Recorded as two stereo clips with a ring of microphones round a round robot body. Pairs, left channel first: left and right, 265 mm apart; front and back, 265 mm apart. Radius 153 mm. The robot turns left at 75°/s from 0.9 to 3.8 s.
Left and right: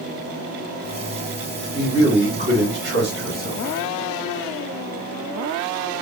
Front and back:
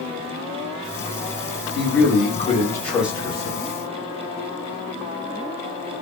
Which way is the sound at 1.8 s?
Straight ahead.